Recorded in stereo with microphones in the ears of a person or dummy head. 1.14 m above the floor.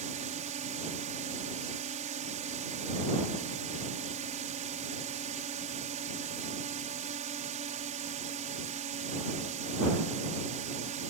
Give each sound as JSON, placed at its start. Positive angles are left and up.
{"t": 0.0, "sound": "a drone", "side_deg": -30}